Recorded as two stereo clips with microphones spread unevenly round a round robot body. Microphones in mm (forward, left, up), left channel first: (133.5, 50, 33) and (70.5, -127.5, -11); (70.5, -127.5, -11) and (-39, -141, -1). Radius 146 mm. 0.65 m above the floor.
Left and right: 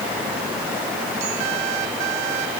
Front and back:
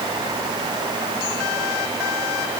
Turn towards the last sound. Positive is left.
No sound to turn to.